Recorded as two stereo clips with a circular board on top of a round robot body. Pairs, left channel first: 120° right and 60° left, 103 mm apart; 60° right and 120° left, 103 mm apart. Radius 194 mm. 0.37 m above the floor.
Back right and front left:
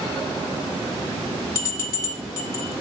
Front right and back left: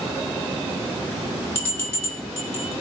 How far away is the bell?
About 2.5 m.